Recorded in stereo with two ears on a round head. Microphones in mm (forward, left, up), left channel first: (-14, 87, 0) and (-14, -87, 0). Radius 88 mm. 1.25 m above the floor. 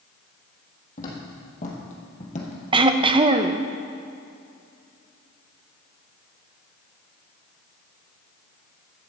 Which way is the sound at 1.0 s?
40° left (ahead or behind).